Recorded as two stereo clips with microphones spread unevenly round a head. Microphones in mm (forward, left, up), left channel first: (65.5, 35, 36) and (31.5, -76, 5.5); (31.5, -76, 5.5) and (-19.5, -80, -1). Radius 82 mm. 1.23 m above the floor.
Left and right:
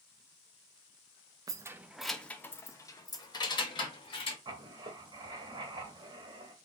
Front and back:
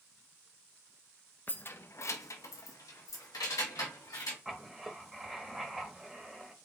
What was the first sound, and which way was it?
Keys jangling, 40° right.